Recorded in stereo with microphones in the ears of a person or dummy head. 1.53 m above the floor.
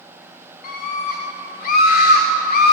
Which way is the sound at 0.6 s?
50° left (ahead or behind).